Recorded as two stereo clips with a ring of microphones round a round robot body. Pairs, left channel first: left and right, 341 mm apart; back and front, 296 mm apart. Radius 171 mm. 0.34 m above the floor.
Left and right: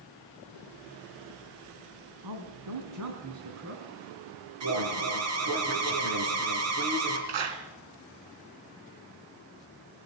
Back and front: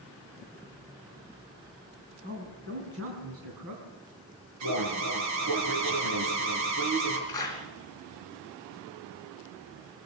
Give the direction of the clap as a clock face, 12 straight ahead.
3 o'clock.